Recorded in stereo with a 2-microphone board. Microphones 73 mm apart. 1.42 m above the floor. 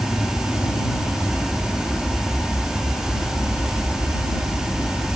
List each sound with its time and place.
0.0 s an aircraft: 40° left (ahead or behind)